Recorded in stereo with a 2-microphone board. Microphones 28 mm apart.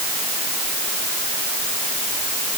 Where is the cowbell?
I don't hear a cowbell.